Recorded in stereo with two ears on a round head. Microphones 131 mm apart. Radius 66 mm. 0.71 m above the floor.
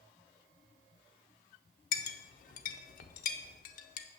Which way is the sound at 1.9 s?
65° left (ahead or behind).